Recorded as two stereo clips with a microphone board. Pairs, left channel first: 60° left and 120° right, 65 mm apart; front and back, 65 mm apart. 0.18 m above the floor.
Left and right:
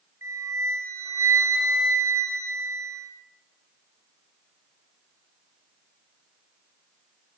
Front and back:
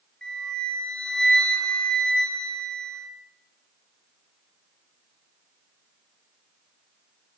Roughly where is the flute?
Right.